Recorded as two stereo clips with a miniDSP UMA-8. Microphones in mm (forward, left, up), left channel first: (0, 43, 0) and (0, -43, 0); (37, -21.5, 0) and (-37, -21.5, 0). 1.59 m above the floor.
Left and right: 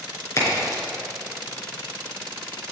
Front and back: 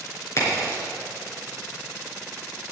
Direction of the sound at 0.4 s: 40° left.